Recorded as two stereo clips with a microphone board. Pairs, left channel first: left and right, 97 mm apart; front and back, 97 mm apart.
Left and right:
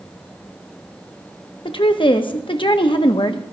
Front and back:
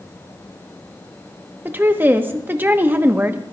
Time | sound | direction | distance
1.6 | a woman speaking | 115° left | 1.0 m